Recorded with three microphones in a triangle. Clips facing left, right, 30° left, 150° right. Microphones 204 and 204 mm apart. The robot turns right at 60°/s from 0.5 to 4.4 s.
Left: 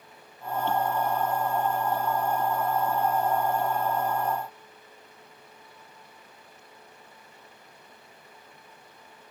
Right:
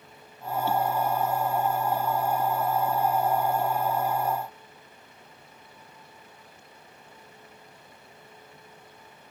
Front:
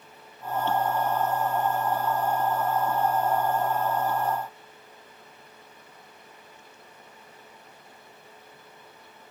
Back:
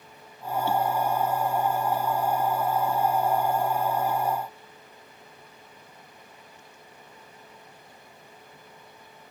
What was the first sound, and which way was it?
Only background noise.